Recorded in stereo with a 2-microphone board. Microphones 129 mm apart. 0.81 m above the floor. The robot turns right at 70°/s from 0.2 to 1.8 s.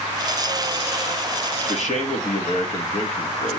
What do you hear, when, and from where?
1.7 s a man speaking: 55° left (ahead or behind), 1.5 m; by 3.6 s 60° left (ahead or behind), 1.5 m